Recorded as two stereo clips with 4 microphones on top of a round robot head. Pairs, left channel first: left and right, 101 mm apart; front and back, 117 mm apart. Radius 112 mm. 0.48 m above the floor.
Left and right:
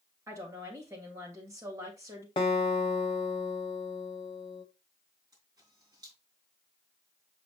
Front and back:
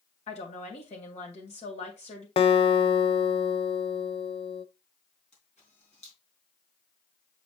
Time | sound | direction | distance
0.3 | a woman speaking | 25° right | 3 m
2.4 | a guitar | 40° left | 0.5 m
5.3 | a camera shutter | 30° right | 3 m